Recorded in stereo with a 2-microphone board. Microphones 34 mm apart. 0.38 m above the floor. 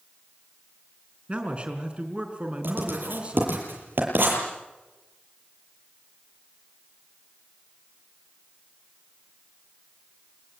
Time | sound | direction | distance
1.3 | a man speaking | 35° right (ahead or behind) | 4.5 m
2.6 | writing | 65° right (ahead or behind) | 8 m